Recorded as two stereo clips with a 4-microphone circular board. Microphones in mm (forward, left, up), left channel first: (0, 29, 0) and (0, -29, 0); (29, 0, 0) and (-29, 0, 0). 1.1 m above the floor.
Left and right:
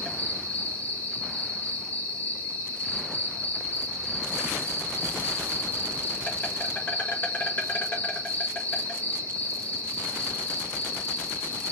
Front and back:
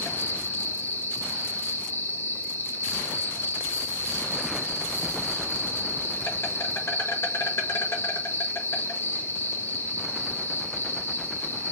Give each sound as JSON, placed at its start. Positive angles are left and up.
{"t": 0.0, "sound": "an insect", "azimuth_deg": 30, "distance_m": 1.8}